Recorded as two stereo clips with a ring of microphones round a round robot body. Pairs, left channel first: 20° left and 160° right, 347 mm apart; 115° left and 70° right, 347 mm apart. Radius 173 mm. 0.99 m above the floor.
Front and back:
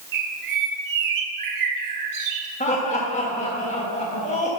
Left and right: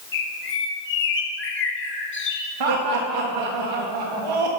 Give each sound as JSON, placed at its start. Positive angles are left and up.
{"t": 0.1, "sound": "a bird", "azimuth_deg": 170, "distance_m": 1.7}
{"t": 2.6, "sound": "laughter", "azimuth_deg": -50, "distance_m": 1.4}